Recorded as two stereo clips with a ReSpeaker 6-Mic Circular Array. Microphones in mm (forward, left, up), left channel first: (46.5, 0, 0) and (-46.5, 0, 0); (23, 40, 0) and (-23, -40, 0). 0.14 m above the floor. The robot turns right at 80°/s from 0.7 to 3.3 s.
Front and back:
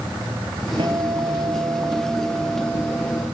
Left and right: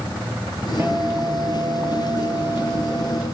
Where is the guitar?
170° left, 2.5 m; by 3.2 s 10° left, 2.5 m.